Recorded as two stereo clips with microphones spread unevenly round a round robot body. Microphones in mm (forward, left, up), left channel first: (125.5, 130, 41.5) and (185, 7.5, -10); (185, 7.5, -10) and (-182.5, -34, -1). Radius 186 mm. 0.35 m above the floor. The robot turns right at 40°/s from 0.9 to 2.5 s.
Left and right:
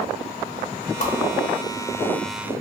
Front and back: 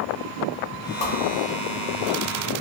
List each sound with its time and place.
1.0 s a whoosh: 75° left, 0.8 m; by 1.1 s 80° left, 0.8 m